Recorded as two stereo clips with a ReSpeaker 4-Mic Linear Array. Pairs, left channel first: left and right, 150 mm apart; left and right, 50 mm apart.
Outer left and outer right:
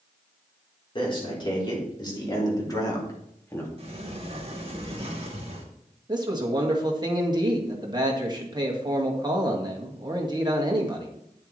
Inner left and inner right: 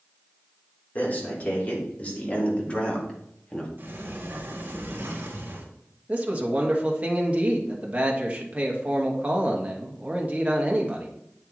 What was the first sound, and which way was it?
A man speaking, 35° left (ahead or behind).